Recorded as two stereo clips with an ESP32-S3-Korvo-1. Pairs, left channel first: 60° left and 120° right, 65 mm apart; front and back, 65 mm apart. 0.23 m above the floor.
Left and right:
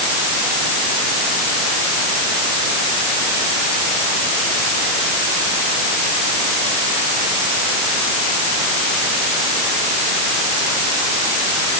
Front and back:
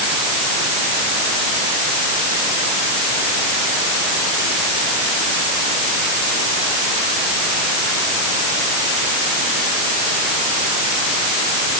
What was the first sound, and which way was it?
Only background noise.